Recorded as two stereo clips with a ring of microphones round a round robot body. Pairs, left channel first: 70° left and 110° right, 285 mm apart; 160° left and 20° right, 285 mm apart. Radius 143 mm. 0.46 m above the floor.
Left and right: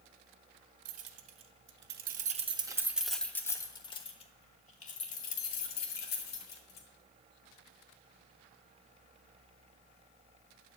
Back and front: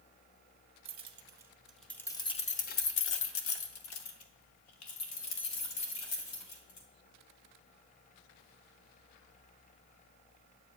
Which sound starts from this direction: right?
Keys jangling, at 0.8 s.